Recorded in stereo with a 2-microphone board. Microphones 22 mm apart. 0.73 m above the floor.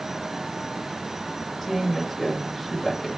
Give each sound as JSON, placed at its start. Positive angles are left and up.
{"t": 1.6, "sound": "a woman speaking", "side_deg": 15, "distance_m": 5.0}